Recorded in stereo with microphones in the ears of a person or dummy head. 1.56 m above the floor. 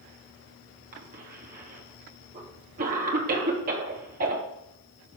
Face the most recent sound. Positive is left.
turn(degrees=-50)  # may be behind; listen again after turning